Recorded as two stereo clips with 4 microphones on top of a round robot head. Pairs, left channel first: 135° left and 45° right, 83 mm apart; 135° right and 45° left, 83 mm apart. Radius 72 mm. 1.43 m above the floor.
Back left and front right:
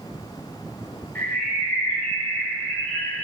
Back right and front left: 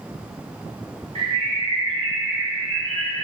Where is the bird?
60° left, 2.5 m.